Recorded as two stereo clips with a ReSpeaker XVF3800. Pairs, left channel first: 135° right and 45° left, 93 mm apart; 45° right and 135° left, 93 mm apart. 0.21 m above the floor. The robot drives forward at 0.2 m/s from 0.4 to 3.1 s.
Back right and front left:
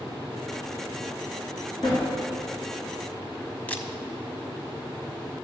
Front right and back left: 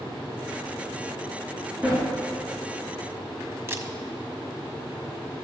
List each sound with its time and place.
1.8 s a sliding door: 150° right, 3 m
3.7 s a camera shutter: 170° left, 0.6 m